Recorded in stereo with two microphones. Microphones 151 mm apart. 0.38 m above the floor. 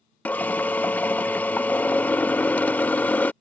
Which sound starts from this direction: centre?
A drill, at 0.2 s.